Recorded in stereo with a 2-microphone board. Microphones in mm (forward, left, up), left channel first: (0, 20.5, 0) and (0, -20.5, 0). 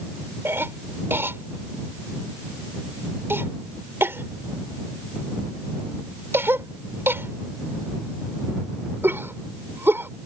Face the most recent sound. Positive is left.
turn(degrees=-70)  # may be behind; listen again after turning